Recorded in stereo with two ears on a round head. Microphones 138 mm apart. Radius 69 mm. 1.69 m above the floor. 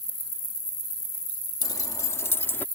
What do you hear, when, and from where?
1.6 s keys jangling: 25° left (ahead or behind); by 2.6 s 10° left (ahead or behind)